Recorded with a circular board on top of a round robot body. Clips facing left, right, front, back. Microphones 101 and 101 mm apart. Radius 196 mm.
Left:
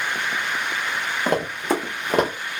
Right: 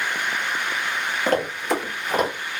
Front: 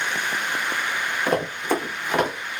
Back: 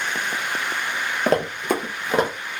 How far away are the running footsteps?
About 0.7 m.